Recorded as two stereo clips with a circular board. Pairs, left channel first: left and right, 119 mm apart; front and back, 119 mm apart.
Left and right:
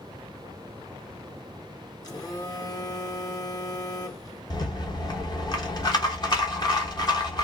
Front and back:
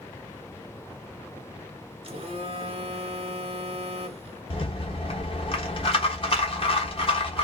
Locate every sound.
2.0 s a phone buzzing: 145° left, 1.2 m
4.5 s a rattle: 35° left, 1.0 m